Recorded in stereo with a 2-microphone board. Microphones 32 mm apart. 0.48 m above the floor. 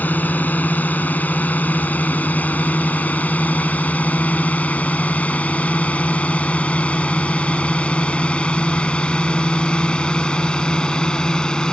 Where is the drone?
65° left (ahead or behind); by 11.7 s 25° left (ahead or behind).